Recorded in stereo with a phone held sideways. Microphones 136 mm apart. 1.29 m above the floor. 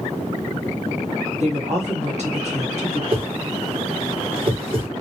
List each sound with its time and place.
1.4 s a woman speaking: 55° right (ahead or behind), 1.4 m
3.1 s a whoosh: 40° right (ahead or behind), 0.9 m